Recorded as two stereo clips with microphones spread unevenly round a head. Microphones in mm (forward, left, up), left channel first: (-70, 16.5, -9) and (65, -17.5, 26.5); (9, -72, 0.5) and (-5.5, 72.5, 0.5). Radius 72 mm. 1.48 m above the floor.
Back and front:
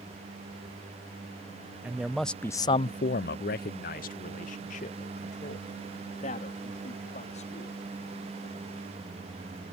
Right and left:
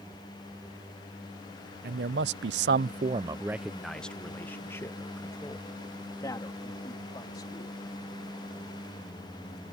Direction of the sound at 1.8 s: 70° left.